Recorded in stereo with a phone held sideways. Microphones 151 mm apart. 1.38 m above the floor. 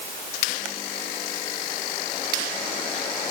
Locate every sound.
Only background noise.